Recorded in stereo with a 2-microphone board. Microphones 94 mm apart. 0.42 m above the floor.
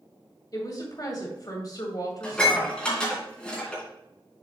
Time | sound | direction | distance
0.5 | a woman speaking | 45° left (ahead or behind) | 2.5 m
2.2 | dishes clattering | 10° left (ahead or behind) | 3.5 m